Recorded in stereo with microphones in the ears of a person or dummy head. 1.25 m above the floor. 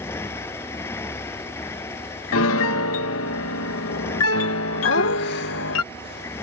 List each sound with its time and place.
0.0 s a motorcycle: 15° left (ahead or behind)
2.3 s a piano: 70° left (ahead or behind)
4.8 s laughter: 55° left (ahead or behind)